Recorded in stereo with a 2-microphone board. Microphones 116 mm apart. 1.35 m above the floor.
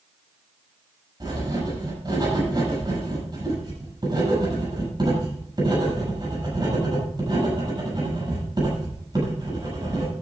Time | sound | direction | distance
1.2 | writing | 40° right (ahead or behind) | 7.5 m